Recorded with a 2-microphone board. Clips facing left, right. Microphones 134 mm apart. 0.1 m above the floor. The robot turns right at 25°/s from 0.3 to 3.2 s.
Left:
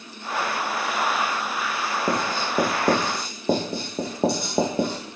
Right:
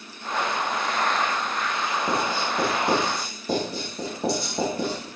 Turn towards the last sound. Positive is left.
turn(degrees=55)  # may be behind; listen again after turning